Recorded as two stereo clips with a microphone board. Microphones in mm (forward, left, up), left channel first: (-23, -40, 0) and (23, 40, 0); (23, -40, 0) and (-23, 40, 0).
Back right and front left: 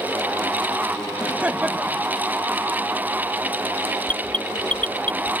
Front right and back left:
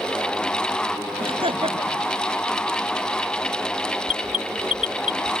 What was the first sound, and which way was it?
Laughter, 135° left.